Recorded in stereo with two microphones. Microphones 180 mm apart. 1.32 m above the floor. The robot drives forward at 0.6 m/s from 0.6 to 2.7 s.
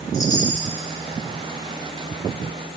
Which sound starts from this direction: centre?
A chime, at 0.1 s.